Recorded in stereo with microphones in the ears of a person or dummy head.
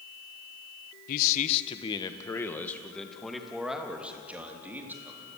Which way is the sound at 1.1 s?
50° left (ahead or behind).